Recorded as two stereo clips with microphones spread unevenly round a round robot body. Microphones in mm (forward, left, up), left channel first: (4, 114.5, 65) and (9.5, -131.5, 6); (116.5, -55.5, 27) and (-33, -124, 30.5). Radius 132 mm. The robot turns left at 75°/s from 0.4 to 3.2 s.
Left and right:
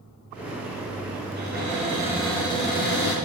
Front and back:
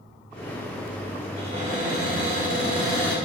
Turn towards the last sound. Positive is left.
turn(degrees=120)